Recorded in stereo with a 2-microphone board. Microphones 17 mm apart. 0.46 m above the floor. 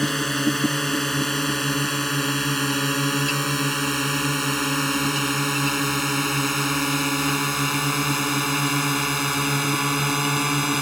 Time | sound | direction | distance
0.0 | a drone | 15° left (ahead or behind) | ?